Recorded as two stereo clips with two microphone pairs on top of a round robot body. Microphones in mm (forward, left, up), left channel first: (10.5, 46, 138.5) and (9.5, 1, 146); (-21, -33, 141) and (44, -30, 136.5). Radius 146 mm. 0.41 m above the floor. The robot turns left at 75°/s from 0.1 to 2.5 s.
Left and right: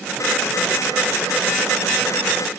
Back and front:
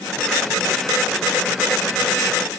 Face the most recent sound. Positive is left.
No sound to turn to.